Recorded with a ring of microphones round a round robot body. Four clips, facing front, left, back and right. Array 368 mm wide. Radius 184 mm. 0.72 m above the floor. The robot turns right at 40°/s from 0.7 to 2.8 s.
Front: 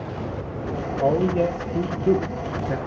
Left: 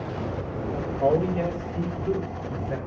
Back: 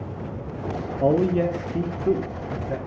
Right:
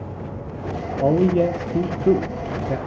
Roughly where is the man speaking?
Behind right.